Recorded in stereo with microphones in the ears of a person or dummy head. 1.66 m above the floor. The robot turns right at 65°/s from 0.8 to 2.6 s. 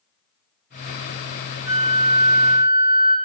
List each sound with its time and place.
1.6 s a flute: 170° right, 1.7 m; by 3.1 s 110° right, 1.7 m